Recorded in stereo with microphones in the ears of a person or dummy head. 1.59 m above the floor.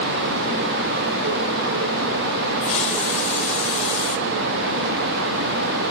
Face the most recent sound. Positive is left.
turn(degrees=40)  # may be behind; listen again after turning